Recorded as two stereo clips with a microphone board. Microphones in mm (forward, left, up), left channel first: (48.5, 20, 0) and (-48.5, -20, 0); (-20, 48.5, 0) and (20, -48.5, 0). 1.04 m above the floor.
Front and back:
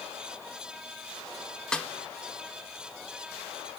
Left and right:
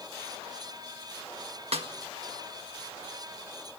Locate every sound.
1.7 s a snare drum: 60° right, 1.6 m